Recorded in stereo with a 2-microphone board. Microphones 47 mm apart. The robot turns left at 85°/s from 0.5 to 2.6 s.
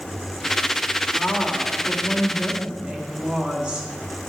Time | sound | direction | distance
1.1 | a woman speaking | 100° left | 1.3 m